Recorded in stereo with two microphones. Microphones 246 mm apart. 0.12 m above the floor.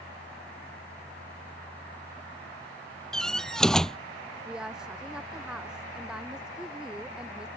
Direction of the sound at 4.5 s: 5° right (ahead or behind).